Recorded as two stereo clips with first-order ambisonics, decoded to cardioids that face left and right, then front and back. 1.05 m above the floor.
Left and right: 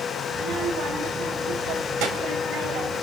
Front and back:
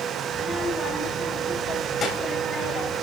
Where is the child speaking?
80° right, 3 m; by 3.0 s 55° right, 4 m.